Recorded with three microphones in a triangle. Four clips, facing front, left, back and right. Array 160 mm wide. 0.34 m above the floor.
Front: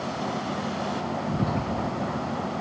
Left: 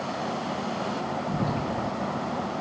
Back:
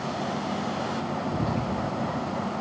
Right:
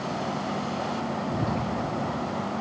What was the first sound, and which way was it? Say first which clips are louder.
Whispering: left 1 dB, front 2 dB; 5° right.